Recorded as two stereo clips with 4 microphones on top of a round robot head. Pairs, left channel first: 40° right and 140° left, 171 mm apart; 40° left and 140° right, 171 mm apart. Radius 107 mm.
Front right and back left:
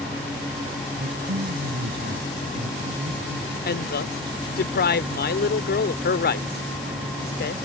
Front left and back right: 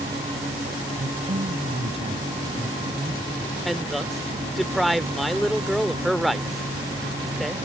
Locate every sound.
1.0 s a woman speaking: 170° left; by 3.5 s 160° left
3.6 s a woman speaking: 50° right